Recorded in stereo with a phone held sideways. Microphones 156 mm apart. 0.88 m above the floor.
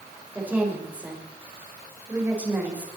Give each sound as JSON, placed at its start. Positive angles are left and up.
{"t": 0.3, "sound": "a woman speaking", "side_deg": -10, "distance_m": 4.5}